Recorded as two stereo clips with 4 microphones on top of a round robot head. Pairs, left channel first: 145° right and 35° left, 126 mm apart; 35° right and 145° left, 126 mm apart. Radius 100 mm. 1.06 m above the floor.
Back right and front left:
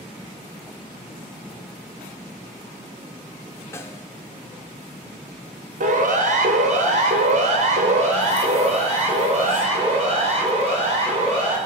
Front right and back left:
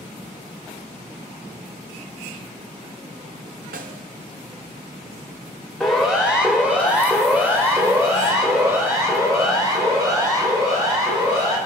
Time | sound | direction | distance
3.7 | a snare drum | 145° left | 1.1 m
5.8 | a siren | 55° left | 2.5 m